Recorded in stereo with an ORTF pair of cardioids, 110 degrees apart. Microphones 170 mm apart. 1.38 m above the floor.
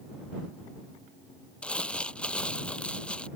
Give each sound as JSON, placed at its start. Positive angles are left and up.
{"t": 1.6, "sound": "crumpling", "azimuth_deg": 5}